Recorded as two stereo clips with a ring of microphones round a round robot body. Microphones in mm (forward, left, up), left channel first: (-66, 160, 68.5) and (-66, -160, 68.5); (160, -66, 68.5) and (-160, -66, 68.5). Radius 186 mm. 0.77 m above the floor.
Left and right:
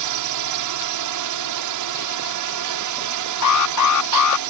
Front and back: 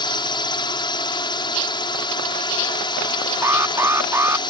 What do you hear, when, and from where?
0.0 s a drone: 75° right
3.4 s an alarm: 100° left